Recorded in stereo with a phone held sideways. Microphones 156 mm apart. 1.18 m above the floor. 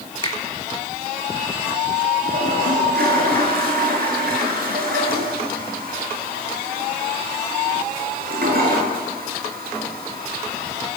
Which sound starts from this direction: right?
A toilet flushing, at 2.2 s.